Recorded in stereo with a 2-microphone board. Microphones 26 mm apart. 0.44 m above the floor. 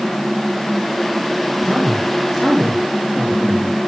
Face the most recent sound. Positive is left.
turn(degrees=15)  # may be behind; listen again after turning